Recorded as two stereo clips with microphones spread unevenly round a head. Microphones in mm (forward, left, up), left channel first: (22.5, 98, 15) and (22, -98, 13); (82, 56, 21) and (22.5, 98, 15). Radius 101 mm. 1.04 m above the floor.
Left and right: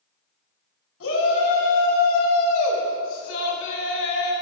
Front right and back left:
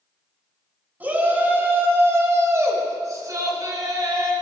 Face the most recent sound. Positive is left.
turn(degrees=125)